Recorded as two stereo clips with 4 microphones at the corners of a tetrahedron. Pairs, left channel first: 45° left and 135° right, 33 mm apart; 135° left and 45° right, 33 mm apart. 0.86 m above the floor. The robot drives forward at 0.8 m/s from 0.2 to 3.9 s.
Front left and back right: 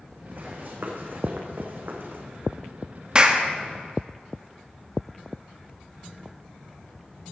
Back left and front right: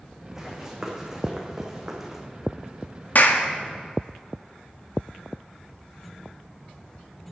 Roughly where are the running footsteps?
Behind right.